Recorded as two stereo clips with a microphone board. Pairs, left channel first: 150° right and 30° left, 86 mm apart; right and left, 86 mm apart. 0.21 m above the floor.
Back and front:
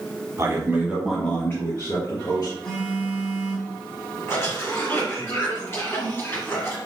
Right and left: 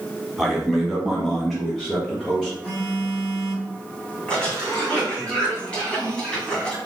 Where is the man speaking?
5° left, 1.4 m; by 2.5 s straight behind, 2.5 m.